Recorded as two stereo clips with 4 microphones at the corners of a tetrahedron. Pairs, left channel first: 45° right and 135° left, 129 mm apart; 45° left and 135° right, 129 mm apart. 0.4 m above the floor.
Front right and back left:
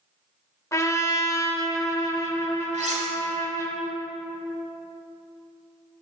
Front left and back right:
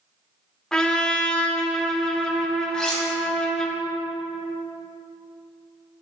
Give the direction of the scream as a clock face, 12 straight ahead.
I don't hear a scream.